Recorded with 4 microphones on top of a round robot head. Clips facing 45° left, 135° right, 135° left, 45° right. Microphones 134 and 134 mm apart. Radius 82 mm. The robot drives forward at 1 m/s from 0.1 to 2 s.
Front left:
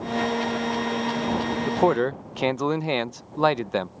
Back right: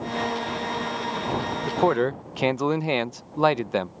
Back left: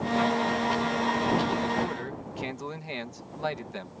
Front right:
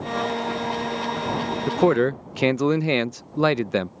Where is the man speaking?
30° right; by 3.9 s 50° right.